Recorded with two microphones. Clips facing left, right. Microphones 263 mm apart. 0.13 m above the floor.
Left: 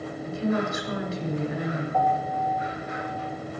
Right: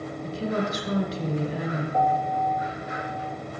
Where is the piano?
20° right (ahead or behind), 2.5 m.